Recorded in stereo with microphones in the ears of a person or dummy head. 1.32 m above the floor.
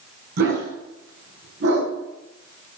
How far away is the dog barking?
About 5.5 m.